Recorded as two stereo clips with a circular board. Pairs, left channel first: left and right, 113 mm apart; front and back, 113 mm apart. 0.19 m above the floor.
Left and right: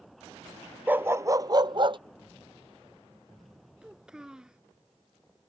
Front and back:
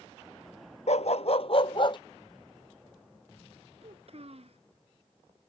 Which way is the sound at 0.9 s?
15° right.